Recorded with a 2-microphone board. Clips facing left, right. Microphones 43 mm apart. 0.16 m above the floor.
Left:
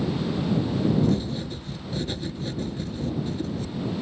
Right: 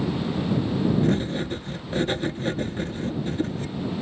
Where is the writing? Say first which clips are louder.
Right 1 dB; 45° right (ahead or behind).